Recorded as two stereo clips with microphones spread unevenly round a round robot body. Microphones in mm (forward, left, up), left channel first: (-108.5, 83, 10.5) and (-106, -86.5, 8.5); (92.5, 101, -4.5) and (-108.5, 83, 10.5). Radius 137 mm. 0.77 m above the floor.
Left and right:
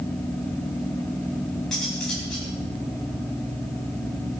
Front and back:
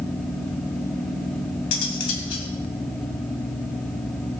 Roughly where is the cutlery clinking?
Ahead.